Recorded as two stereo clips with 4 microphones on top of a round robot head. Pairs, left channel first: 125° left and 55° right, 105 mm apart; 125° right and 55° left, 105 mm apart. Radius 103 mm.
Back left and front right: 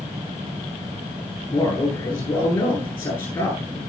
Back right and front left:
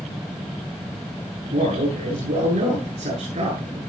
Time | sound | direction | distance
1.5 | a man speaking | 60° left | 9.5 m